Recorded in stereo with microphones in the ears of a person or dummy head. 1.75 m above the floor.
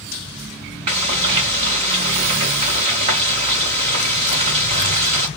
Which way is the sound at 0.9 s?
20° right (ahead or behind).